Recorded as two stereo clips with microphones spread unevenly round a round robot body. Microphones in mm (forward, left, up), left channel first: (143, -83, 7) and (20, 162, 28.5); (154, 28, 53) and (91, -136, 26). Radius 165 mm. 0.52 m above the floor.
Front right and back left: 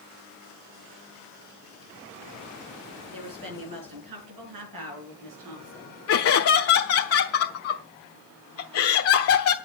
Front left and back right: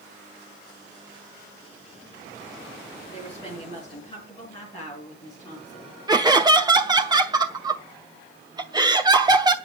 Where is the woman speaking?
145° left, 5.5 m.